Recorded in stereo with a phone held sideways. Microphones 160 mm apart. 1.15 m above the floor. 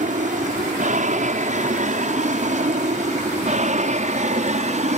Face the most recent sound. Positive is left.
turn(degrees=-45)  # may be behind; listen again after turning